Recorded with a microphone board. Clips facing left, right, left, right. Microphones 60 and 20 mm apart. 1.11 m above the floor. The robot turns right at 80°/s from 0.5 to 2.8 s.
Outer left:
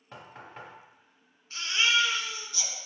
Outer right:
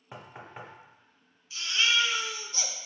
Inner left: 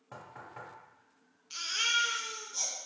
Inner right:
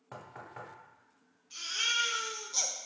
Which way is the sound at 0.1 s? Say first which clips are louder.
Outer right 1 dB, inner right 1 dB; 15° right (ahead or behind).